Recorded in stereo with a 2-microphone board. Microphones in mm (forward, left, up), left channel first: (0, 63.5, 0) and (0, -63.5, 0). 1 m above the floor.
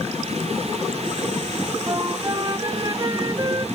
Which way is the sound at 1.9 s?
30° right (ahead or behind).